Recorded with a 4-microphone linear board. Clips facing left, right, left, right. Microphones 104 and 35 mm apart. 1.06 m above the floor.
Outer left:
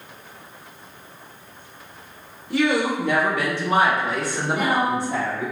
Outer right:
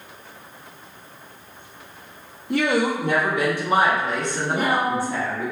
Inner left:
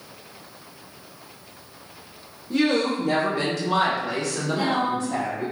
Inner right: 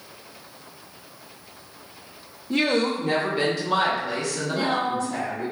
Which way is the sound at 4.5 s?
25° right (ahead or behind).